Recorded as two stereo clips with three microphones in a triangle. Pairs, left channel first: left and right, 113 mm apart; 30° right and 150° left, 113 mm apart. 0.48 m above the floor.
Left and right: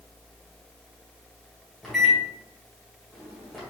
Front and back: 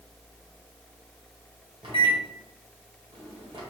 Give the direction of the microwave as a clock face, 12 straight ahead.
6 o'clock.